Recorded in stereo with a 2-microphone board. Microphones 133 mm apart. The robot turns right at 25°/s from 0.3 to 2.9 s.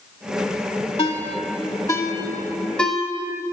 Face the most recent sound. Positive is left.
turn(degrees=5)  # may be behind; listen again after turning